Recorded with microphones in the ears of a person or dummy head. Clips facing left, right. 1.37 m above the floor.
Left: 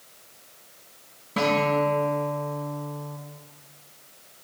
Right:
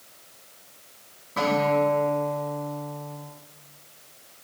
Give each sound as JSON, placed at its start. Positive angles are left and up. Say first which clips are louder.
{"t": 1.4, "sound": "a guitar", "louder": "right 1 dB", "side_deg": 35, "distance_m": 2.5}